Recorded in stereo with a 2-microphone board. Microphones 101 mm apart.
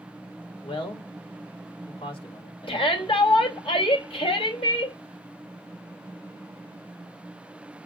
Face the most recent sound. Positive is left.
turn(degrees=65)  # may be behind; listen again after turning